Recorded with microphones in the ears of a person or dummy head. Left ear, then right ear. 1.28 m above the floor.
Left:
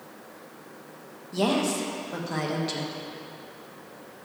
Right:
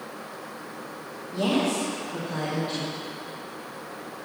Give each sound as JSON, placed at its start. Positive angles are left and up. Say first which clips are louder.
{"t": 1.3, "sound": "a woman speaking", "louder": "even", "side_deg": 65, "distance_m": 1.2}